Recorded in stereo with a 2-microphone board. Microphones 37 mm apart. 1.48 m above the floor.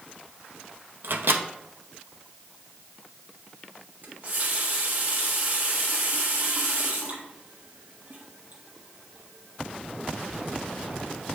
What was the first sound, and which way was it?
A microwave, 80° right.